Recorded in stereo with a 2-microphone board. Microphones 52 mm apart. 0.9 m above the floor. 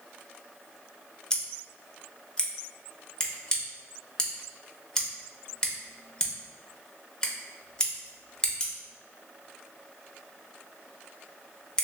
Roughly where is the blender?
I don't hear a blender.